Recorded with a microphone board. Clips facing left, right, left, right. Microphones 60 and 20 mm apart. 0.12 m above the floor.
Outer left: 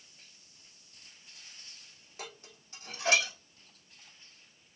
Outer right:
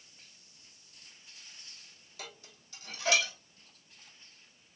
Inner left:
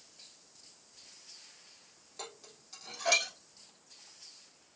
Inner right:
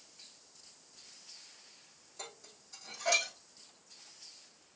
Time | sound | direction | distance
2.2 | dishes clattering | 35° left (ahead or behind) | 3 m